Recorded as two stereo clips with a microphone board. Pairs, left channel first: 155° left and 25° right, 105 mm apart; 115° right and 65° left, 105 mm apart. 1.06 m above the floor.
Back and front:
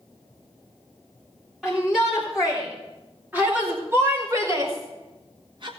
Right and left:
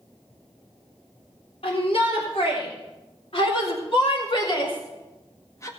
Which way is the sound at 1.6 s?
110° right.